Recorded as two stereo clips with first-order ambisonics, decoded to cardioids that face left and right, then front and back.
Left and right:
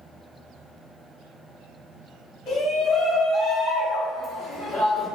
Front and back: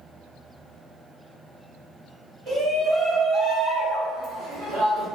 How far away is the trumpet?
I don't hear a trumpet.